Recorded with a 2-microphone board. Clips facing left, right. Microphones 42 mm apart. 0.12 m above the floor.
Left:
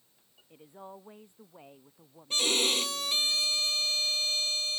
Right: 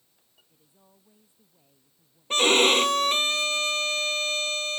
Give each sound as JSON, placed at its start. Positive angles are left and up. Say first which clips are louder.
{"t": 0.5, "sound": "a woman speaking", "louder": "left 17 dB", "side_deg": 60}
{"t": 2.3, "sound": "a violin", "louder": "right 9 dB", "side_deg": -55}